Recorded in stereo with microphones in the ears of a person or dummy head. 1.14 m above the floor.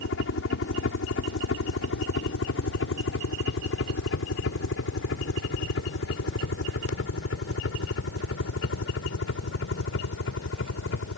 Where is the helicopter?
60° left (ahead or behind); by 11.2 s 65° left (ahead or behind).